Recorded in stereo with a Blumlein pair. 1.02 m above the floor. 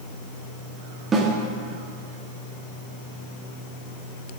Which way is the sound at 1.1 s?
20° right.